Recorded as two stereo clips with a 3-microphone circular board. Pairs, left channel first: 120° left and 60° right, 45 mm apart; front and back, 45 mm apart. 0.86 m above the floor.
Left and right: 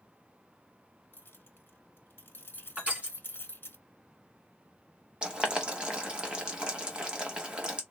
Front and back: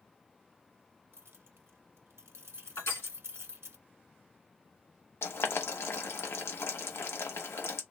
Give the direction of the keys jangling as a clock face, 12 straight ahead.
7 o'clock.